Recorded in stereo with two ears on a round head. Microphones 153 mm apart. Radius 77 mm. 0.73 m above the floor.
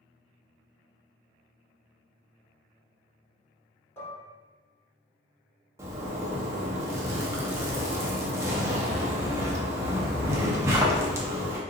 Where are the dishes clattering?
15° left (ahead or behind), 1.2 m.